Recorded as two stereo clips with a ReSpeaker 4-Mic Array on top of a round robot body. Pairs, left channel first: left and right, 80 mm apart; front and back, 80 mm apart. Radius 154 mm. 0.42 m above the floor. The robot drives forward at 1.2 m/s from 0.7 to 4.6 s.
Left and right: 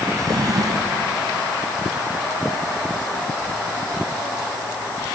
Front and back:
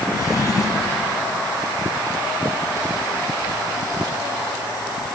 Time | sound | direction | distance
0.1 | a drawer | 45° right | 2 m